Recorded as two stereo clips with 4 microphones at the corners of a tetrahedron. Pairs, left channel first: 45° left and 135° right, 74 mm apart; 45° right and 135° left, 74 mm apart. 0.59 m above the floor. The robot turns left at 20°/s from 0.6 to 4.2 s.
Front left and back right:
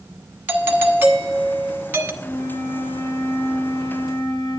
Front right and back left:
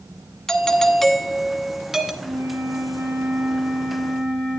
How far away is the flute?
About 2.5 m.